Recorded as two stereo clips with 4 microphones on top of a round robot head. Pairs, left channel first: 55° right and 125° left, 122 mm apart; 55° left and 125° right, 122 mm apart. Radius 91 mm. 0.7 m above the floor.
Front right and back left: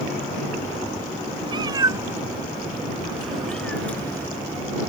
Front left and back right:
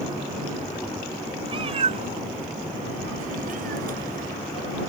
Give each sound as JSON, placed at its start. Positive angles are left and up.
{"t": 1.5, "sound": "a cat meowing", "azimuth_deg": 180}